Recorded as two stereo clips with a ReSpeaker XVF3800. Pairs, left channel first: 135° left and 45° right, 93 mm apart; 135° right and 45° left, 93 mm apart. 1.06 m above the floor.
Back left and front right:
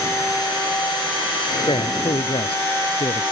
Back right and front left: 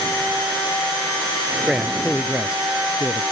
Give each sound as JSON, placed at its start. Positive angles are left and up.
{"t": 1.7, "sound": "a man speaking", "azimuth_deg": 130}